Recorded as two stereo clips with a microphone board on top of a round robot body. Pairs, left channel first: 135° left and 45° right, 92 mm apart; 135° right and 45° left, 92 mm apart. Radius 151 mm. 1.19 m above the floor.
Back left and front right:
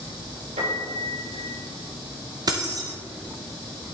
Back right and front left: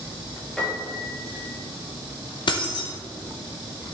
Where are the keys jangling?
95° right, 0.6 m.